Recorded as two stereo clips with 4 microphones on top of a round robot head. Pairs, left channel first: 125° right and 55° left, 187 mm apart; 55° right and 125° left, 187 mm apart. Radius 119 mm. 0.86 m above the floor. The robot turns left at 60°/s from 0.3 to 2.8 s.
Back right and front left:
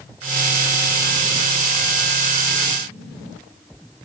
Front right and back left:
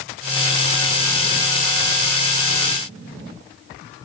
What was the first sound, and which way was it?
Only background noise.